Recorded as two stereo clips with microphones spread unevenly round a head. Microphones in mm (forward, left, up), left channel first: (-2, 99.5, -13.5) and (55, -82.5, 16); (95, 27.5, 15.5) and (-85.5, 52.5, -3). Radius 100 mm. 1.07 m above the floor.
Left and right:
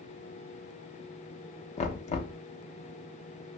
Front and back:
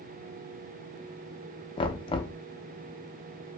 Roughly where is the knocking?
Ahead left.